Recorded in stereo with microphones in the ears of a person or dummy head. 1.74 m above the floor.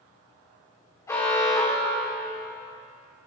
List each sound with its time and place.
1.1 s an alarm: 20° left (ahead or behind), 4 m